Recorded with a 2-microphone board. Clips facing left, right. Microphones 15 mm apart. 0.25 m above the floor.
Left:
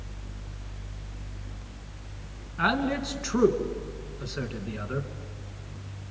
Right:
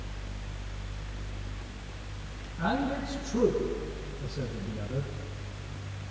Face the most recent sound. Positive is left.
turn(degrees=55)  # may be behind; listen again after turning